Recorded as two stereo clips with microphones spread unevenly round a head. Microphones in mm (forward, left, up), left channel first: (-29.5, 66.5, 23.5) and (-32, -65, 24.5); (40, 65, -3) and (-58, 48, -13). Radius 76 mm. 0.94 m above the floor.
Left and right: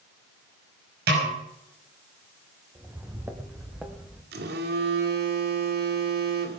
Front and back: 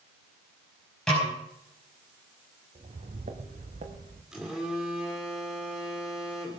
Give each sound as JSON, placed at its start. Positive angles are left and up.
{"t": 1.1, "sound": "a snare drum", "azimuth_deg": -75, "distance_m": 5.5}
{"t": 2.8, "sound": "footsteps", "azimuth_deg": -165, "distance_m": 2.0}
{"t": 4.3, "sound": "a phone buzzing", "azimuth_deg": -85, "distance_m": 1.9}